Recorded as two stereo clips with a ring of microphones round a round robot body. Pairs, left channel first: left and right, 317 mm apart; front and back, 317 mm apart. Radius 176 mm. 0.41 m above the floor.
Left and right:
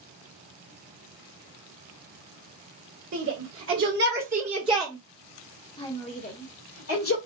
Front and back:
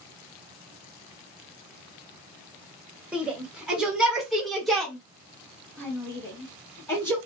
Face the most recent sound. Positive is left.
turn(degrees=80)